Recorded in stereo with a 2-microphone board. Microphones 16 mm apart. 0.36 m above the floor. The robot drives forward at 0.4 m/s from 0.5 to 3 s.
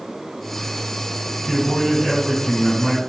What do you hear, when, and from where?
1.5 s a man speaking: 5° left (ahead or behind), 1.8 m